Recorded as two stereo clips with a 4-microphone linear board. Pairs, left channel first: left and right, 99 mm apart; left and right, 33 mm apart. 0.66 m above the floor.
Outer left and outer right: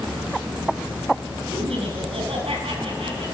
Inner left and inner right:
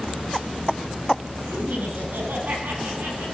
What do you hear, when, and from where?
1.5 s laughter: 80° right, 6 m; by 3.2 s 85° right, 7 m